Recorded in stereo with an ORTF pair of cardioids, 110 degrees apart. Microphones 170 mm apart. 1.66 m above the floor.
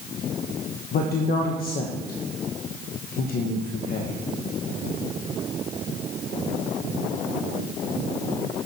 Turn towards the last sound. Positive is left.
turn(degrees=65)